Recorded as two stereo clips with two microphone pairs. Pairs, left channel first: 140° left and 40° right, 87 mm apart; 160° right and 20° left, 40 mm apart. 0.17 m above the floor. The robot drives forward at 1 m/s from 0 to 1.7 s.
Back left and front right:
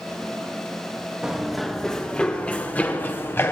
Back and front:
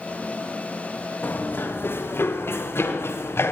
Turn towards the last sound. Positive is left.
turn(degrees=-160)